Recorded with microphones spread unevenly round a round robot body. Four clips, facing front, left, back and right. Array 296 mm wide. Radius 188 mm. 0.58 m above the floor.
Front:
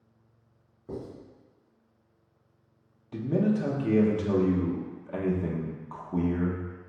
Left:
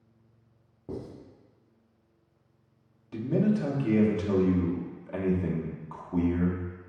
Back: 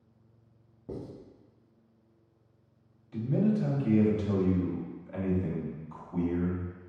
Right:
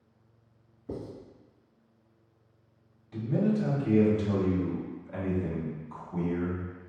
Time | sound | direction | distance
0.9 | writing | 145° left | 0.8 m
3.1 | a man speaking | 30° left | 0.9 m